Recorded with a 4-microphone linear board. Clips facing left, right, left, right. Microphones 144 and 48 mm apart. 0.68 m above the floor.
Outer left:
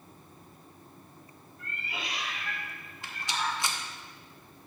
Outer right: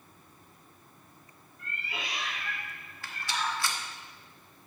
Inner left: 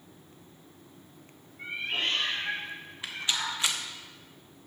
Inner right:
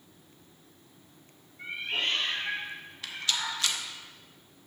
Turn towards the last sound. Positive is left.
turn(degrees=20)  # may be behind; listen again after turning